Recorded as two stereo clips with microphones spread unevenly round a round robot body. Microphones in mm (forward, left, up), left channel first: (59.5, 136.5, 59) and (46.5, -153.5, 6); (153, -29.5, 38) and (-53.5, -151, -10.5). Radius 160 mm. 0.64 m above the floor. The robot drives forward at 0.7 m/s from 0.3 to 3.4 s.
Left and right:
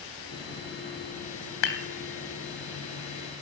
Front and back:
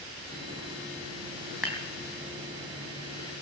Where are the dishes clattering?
120° left, 2.5 m; by 1.8 s 125° left, 3 m.